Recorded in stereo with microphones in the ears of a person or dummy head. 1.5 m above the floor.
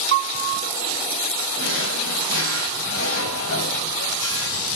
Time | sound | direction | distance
0.1 | a piano | 60° right (ahead or behind) | 2.5 m
1.6 | a drawer | 80° left | 5 m